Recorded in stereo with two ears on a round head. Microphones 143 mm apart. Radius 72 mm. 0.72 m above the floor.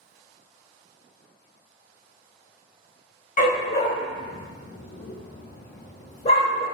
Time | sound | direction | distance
3.4 | a dog barking | 45° left (ahead or behind) | 1.0 m